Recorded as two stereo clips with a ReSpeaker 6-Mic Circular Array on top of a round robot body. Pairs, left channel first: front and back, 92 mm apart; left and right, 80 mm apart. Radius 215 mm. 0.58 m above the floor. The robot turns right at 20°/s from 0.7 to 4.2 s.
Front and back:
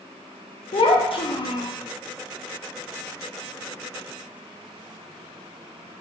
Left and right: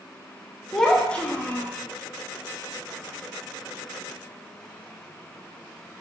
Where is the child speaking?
5° left, 0.6 m; by 1.7 s 25° left, 0.6 m.